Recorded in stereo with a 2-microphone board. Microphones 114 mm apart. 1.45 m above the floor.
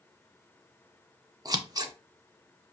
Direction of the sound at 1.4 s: 35° right (ahead or behind).